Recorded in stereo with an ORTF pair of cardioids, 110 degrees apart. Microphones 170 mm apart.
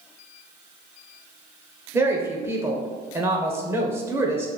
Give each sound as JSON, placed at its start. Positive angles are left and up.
{"t": 1.9, "sound": "a woman speaking", "azimuth_deg": -15, "distance_m": 0.6}